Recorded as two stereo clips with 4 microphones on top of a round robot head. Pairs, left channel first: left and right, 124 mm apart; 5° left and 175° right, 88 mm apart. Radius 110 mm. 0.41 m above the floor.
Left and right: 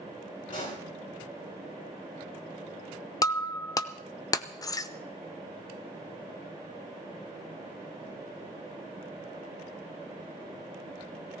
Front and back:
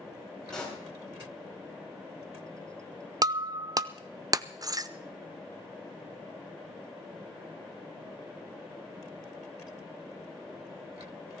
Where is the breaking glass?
145° left, 0.7 m.